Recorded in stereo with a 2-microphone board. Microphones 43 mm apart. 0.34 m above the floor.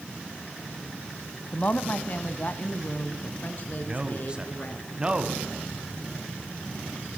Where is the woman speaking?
40° left (ahead or behind), 1.8 m; by 4.8 s 45° left (ahead or behind), 4 m.